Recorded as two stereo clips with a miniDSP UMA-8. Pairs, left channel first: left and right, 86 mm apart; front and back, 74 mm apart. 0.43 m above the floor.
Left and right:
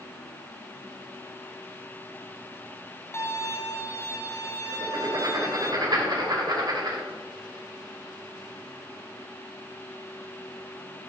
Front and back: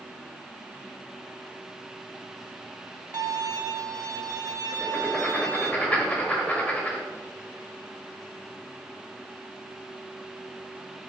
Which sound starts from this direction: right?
Writing, at 4.7 s.